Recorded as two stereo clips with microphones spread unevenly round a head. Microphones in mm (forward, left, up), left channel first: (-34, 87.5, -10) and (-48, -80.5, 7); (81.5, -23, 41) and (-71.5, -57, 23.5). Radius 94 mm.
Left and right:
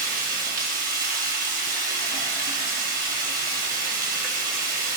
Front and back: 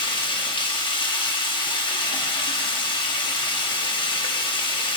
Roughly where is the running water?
Ahead right.